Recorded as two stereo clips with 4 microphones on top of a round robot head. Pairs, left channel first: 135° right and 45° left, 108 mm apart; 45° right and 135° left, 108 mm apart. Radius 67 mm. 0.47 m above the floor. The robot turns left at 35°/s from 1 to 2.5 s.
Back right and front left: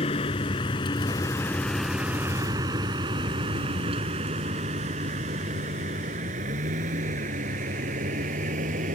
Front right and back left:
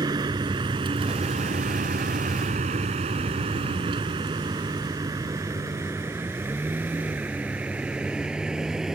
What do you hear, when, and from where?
0.0 s a vehicle: 170° right; by 8.9 s 45° left